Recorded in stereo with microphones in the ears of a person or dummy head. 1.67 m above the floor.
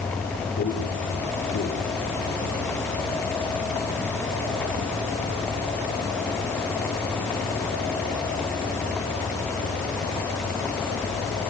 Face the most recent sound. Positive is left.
turn(degrees=45)  # may be behind; listen again after turning